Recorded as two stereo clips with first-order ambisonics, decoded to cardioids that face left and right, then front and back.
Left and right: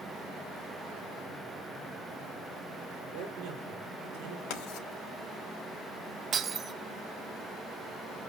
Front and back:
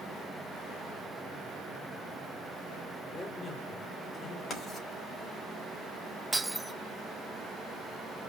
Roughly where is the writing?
Left.